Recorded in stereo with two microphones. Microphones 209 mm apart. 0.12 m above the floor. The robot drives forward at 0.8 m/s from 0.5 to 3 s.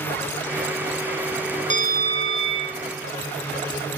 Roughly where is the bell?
Right.